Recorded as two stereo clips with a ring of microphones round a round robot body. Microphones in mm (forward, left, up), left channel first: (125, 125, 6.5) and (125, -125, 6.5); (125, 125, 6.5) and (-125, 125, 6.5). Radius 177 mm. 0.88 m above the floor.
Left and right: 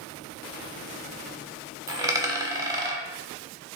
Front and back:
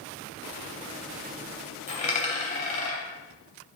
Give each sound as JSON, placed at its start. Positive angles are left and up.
{"t": 1.9, "sound": "a dropped coin", "azimuth_deg": -30, "distance_m": 0.7}